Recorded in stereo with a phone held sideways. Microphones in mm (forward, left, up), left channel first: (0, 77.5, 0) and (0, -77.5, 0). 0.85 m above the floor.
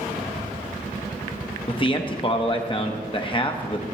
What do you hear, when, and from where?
1.7 s a man speaking: 35° left (ahead or behind), 0.8 m